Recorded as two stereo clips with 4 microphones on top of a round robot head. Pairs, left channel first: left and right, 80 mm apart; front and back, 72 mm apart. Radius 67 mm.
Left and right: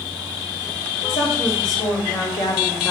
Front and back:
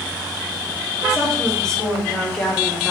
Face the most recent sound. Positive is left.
turn(degrees=75)